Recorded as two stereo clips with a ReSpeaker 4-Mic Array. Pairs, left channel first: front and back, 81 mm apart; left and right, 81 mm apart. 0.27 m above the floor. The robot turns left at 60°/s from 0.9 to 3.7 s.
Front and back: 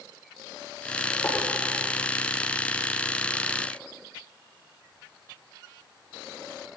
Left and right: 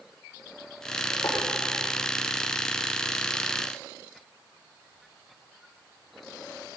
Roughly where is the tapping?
Ahead left.